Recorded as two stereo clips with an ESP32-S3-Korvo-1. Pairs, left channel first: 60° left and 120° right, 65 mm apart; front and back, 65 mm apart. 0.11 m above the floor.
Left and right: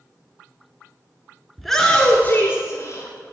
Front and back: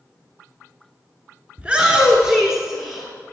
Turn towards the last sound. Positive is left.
turn(degrees=95)